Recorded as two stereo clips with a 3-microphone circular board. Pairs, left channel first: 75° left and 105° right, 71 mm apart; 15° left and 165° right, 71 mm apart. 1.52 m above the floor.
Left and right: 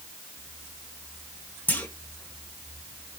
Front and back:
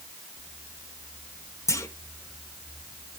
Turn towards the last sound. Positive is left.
turn(degrees=15)